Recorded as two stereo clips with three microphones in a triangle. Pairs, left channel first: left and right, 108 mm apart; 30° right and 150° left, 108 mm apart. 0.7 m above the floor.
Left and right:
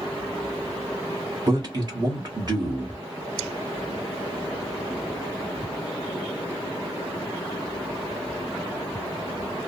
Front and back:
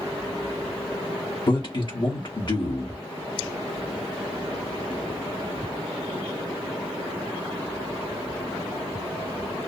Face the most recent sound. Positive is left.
turn(degrees=-50)